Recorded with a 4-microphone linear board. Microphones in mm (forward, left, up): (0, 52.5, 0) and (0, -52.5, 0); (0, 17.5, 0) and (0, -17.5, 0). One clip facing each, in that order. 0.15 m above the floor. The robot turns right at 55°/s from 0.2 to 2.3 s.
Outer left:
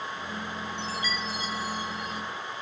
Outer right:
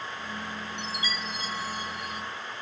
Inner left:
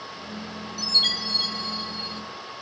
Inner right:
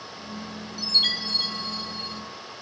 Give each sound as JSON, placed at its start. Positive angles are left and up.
{"t": 0.8, "sound": "a chime", "azimuth_deg": -25, "distance_m": 1.3}